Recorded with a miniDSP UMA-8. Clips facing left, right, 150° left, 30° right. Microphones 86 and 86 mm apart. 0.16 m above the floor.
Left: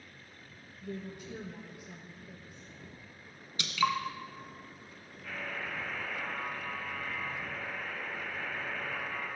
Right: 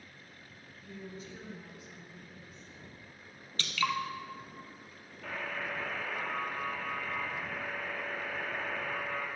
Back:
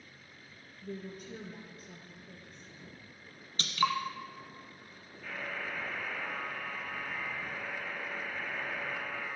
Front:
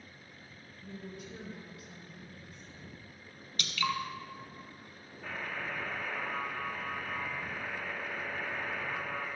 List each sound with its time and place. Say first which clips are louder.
0.8 s a woman speaking: left 4 dB, back 3 dB; 105° left, 4 m
3.6 s dripping: left 3 dB, back 4 dB; 150° left, 1.2 m
5.2 s a buzzer: right 2 dB, front 1 dB; 75° right, 5 m